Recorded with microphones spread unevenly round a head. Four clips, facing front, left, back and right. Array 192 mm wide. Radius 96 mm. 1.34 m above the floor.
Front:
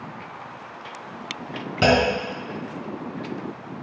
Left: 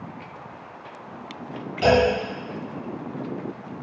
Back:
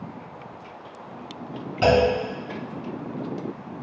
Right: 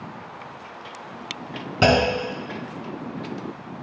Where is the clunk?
65° right, 3.5 m.